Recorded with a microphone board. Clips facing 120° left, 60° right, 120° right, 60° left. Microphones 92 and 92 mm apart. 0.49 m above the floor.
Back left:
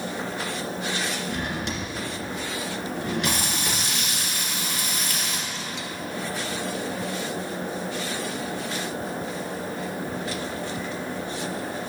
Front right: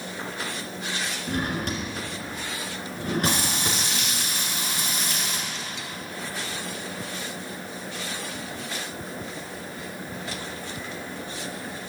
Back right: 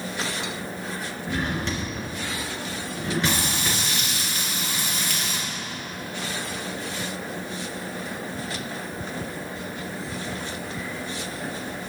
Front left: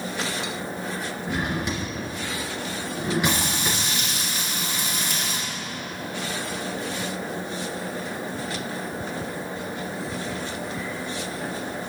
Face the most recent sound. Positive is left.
turn(degrees=-5)